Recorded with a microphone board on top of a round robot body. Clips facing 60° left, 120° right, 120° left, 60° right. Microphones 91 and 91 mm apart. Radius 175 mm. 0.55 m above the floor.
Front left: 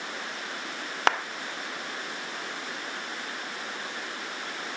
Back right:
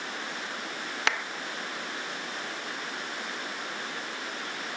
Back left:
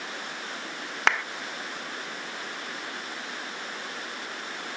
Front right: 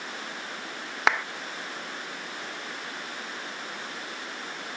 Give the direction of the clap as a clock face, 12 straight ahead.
11 o'clock.